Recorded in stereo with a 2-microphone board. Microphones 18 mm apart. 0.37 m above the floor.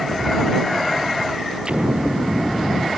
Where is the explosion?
50° right (ahead or behind).